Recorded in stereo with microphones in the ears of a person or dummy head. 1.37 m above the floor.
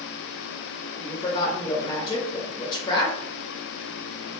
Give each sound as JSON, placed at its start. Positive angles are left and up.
{"t": 0.9, "sound": "a woman speaking", "side_deg": 25, "distance_m": 0.6}